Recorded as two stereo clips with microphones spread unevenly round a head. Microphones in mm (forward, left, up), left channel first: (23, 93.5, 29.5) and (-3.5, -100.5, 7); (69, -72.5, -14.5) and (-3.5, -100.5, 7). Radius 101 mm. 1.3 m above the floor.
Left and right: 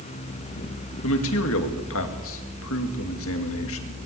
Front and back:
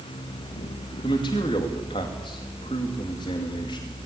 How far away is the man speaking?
About 2.5 m.